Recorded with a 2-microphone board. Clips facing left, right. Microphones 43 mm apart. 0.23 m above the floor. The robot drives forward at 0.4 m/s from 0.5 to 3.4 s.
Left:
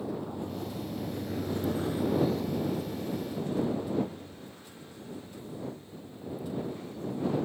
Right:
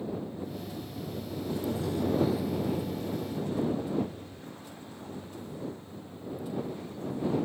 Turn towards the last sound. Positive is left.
turn(degrees=-50)  # may be behind; listen again after turning